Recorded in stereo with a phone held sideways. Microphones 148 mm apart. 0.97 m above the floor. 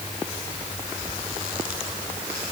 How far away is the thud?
I don't hear a thud.